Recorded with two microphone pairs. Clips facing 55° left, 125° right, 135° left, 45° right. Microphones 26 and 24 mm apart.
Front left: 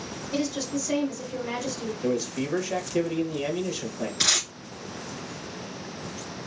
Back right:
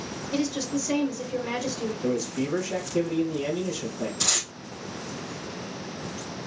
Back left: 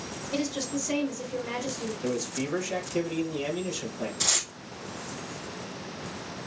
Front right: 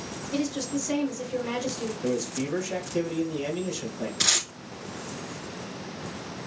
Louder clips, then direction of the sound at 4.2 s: Front left 4 dB, front right 4 dB; 5° left.